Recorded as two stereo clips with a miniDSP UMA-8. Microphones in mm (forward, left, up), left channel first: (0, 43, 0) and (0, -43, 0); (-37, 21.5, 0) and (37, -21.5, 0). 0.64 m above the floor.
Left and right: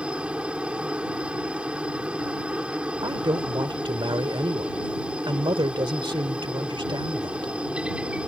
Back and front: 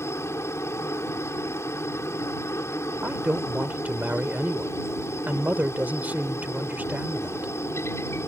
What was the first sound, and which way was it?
A helicopter, 165° right.